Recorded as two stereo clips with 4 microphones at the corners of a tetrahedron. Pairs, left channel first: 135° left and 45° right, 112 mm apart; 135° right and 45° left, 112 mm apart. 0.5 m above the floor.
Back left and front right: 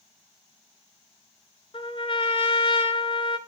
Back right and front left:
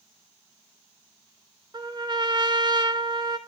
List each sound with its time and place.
1.7 s a trumpet: 95° left, 1.2 m